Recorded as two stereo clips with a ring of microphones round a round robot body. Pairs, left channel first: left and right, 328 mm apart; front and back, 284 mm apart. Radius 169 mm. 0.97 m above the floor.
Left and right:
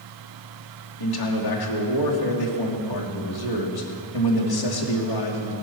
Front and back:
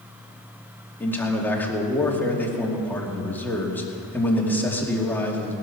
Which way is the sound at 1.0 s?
85° left.